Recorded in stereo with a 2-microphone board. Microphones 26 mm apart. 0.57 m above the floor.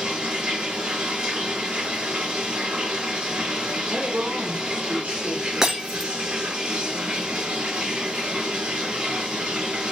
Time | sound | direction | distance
0.0 | running water | 45° right (ahead or behind) | 2 m
3.9 | a woman speaking | 65° right (ahead or behind) | 1.8 m
5.6 | breaking glass | 20° right (ahead or behind) | 1.8 m